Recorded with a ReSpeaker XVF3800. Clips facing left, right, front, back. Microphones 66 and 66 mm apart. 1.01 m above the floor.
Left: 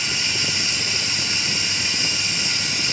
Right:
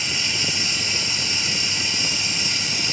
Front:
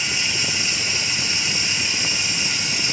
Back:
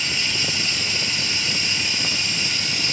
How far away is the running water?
About 1.5 m.